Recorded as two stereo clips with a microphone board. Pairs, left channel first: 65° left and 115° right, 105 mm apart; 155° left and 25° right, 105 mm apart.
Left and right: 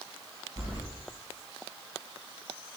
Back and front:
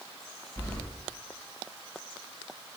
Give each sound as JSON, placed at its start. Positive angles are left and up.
{"t": 0.6, "sound": "keys jangling", "azimuth_deg": -135, "distance_m": 1.7}